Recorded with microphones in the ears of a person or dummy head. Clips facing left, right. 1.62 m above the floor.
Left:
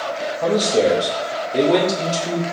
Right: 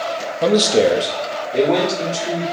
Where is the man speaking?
45° right (ahead or behind), 0.5 m; by 2.4 s 20° left (ahead or behind), 1.5 m.